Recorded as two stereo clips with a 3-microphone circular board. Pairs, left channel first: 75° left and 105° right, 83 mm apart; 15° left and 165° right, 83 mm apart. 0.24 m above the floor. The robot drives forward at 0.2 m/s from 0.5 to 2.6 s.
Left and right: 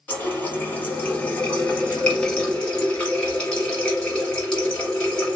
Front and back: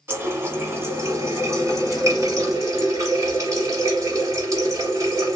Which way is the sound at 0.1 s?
140° left.